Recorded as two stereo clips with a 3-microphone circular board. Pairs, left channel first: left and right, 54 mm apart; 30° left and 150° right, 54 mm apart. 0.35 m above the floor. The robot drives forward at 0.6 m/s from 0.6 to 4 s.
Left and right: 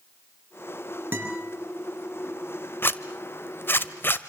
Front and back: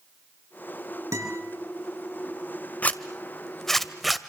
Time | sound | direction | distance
1.1 | a guitar | 145° right | 5 m
2.8 | a zipper | 75° left | 1.2 m